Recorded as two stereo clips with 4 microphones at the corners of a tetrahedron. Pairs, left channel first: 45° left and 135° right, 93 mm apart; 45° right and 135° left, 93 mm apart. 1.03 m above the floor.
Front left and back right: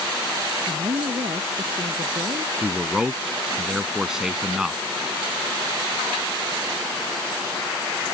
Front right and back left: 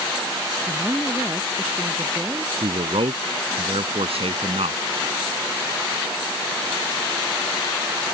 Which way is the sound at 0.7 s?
150° right.